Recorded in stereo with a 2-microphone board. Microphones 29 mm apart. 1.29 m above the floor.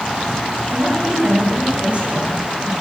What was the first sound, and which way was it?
A woman speaking, 35° right (ahead or behind).